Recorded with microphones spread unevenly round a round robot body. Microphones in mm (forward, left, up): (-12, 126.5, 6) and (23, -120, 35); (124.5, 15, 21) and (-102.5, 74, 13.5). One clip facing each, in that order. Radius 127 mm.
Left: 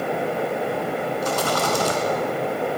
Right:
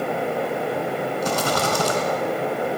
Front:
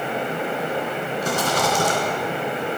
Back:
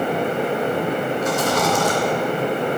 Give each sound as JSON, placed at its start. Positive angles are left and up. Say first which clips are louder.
{"t": 1.2, "sound": "a rattle", "louder": "right 1 dB, back 1 dB", "azimuth_deg": -80, "distance_m": 2.5}